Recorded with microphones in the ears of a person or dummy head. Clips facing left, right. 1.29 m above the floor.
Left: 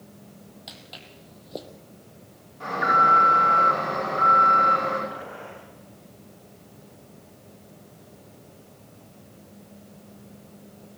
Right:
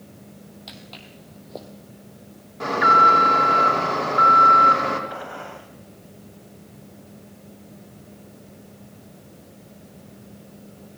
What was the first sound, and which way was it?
Footsteps, centre (ahead or behind).